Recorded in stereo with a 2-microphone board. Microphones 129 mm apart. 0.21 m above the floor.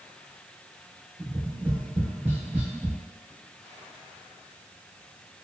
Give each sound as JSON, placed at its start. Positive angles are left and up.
{"t": 1.2, "sound": "tapping", "side_deg": -15, "distance_m": 0.9}